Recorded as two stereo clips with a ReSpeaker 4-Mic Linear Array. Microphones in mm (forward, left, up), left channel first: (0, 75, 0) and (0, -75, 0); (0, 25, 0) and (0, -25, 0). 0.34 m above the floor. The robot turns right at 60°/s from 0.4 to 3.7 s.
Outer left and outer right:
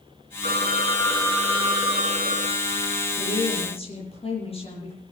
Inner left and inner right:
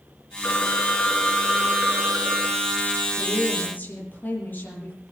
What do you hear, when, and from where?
0.4 s a phone ringing: 130° left, 2.5 m; by 3.1 s 75° right, 2.5 m
3.2 s a woman speaking: 105° left, 8 m; by 5.0 s 140° left, 8 m